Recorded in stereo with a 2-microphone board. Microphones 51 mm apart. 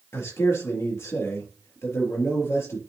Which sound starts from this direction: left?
A man speaking, at 0.1 s.